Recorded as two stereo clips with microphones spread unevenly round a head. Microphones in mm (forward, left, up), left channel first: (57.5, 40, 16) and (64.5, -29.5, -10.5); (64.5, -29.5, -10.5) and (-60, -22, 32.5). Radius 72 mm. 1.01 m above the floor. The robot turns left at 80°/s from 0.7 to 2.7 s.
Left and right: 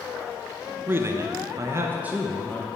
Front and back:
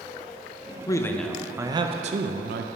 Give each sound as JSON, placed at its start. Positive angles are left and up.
{"t": 0.9, "sound": "a man speaking", "azimuth_deg": -45, "distance_m": 0.6}